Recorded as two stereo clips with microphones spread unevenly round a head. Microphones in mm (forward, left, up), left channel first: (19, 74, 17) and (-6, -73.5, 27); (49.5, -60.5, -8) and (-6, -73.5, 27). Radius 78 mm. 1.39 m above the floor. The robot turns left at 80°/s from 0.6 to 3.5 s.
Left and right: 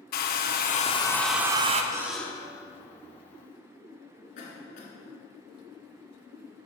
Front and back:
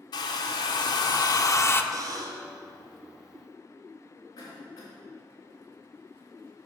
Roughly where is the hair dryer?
Ahead left.